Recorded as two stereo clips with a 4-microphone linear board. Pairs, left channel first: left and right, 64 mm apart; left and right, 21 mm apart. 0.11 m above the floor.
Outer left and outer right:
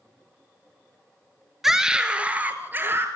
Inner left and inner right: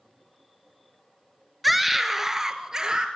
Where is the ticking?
I don't hear ticking.